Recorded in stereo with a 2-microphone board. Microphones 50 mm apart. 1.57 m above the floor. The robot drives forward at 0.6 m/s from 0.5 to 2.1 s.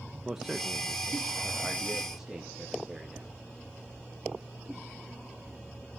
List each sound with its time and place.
0.2 s a man speaking: 10° right (ahead or behind), 1.5 m; by 3.3 s 5° right (ahead or behind), 2.5 m